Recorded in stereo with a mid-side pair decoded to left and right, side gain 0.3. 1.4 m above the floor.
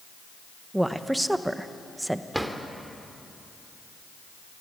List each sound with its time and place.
0.7 s a woman speaking: 10° right, 1.3 m
2.3 s a drawer: 10° right, 2.5 m